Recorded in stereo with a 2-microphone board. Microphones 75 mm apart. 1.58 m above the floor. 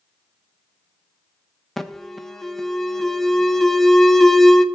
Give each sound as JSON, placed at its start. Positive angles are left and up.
{"t": 1.8, "sound": "an alarm", "side_deg": 5, "distance_m": 0.6}